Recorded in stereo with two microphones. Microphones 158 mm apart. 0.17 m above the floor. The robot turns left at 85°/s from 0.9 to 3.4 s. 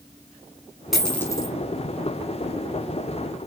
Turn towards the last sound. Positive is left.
turn(degrees=-30)